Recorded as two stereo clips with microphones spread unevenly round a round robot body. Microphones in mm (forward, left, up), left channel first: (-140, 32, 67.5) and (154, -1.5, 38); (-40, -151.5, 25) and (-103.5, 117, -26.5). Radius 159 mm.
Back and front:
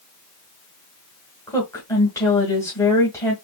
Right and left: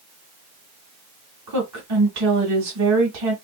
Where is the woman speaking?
90° left, 2 m.